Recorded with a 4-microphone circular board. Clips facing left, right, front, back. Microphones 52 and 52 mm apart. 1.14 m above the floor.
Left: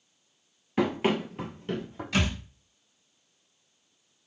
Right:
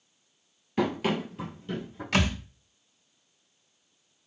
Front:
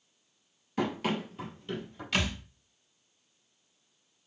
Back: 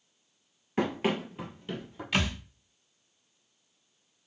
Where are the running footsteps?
160° left, 1.3 m; by 2.0 s 110° left, 2 m.